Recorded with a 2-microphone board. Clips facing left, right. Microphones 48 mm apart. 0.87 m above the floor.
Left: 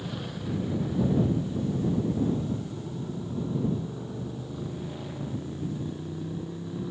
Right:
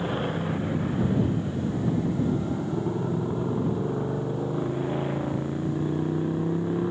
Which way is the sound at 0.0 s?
40° right (ahead or behind).